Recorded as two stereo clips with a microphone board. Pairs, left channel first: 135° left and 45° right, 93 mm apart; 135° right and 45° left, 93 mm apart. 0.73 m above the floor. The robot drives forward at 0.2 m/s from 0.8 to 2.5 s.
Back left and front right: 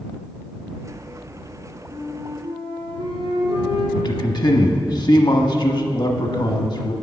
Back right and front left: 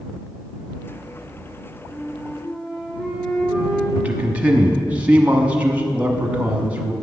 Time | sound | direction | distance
1.9 | a flute | 45° right | 2.5 m
4.0 | a man speaking | 120° left | 0.9 m